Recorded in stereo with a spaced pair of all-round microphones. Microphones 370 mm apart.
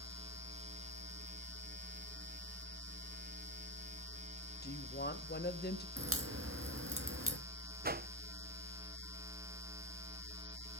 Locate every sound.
4.6 s a woman speaking: 25° left (ahead or behind), 1.7 m
6.0 s a crack: 35° right (ahead or behind), 2.5 m
7.8 s a whoosh: 25° right (ahead or behind), 0.5 m